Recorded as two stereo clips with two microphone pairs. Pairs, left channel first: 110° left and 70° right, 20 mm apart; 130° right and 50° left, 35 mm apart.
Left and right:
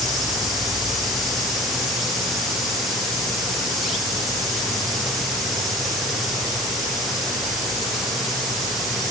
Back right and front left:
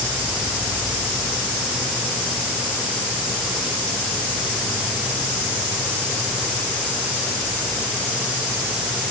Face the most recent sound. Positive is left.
No sound to turn to.